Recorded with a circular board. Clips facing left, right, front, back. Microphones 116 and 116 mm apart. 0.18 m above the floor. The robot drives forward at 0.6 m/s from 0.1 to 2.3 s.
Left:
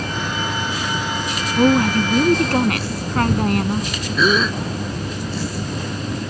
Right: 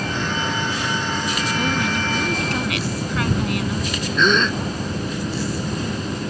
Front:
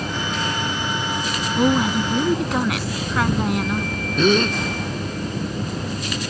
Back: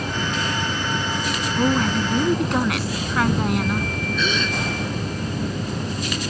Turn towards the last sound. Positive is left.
turn(degrees=10)